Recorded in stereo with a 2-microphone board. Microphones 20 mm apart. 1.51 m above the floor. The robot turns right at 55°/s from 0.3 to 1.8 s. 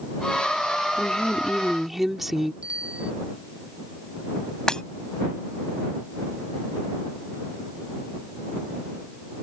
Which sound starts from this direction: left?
Breaking glass, at 4.7 s.